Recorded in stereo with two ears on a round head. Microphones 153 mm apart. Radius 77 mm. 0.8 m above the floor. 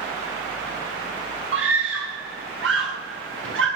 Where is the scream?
75° right (ahead or behind), 9 m; by 3.7 s 85° right, 8.5 m.